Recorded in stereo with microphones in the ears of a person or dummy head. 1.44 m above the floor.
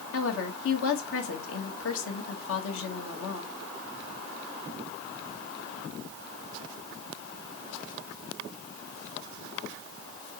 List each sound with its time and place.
0.1 s a woman speaking: 85° left, 1.9 m